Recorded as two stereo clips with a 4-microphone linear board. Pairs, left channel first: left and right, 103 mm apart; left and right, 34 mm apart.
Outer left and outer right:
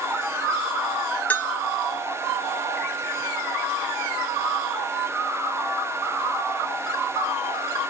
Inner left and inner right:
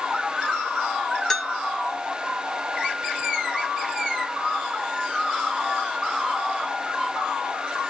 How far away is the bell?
About 0.7 m.